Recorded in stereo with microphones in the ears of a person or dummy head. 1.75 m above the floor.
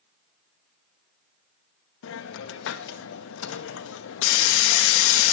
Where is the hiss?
65° left (ahead or behind), 0.6 m.